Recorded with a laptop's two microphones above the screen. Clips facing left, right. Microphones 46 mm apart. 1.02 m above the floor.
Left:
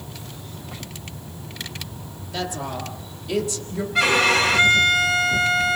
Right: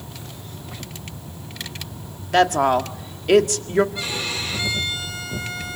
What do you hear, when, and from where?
2.3 s a woman speaking: 65° right (ahead or behind), 1.8 m
4.0 s a violin: 70° left (ahead or behind), 1.3 m